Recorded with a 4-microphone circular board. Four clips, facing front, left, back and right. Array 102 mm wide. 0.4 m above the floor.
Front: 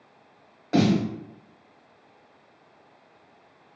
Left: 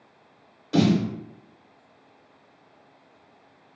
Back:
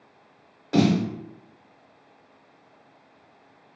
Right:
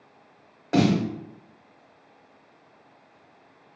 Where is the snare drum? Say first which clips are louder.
Even, back 1 dB; 80° right, 0.8 m.